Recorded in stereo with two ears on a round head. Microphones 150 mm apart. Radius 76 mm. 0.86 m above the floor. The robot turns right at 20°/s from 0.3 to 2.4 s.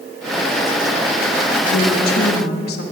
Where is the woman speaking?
55° left (ahead or behind), 1.1 m; by 2.8 s 65° left (ahead or behind), 1.1 m.